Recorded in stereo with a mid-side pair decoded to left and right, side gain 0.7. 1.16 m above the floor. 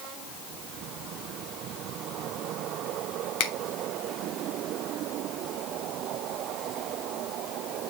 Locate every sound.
3.4 s a finger snap: 70° left, 1.6 m